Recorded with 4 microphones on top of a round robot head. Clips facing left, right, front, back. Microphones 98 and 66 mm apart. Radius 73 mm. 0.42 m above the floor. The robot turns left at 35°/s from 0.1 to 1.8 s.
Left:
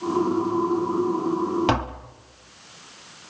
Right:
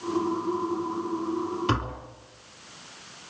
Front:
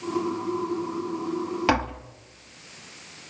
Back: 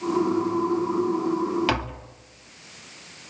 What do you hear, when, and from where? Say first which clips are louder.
1.7 s tapping: left 4 dB, front 3 dB; 65° left, 2 m; by 2.1 s 60° left, 2 m